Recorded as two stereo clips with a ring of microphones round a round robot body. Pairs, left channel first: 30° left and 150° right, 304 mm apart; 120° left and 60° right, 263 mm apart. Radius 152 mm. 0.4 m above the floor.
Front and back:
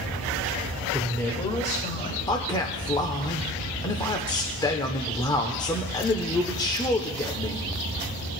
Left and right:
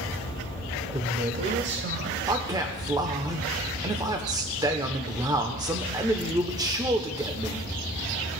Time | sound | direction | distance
0.9 | a man speaking | 75° right | 1.2 m
2.3 | a man speaking | 20° right | 0.8 m